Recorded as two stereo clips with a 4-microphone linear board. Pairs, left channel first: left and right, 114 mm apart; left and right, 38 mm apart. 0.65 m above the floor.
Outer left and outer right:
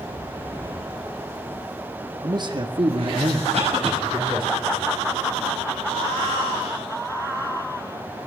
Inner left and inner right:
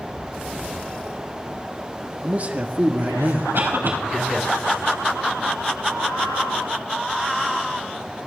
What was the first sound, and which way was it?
A man speaking, 35° right (ahead or behind).